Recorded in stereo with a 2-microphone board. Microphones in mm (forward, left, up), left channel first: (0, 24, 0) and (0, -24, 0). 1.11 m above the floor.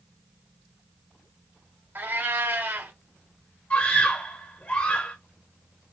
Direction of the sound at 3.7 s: 35° left (ahead or behind).